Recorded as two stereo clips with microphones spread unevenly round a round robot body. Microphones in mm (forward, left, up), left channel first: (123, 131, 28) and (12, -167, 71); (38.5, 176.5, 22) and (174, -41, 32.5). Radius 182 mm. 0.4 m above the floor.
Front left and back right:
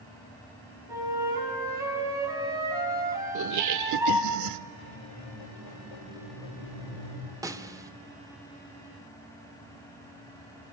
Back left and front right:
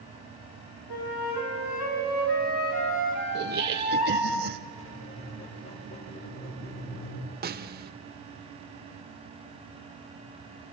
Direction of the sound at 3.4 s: 100° right.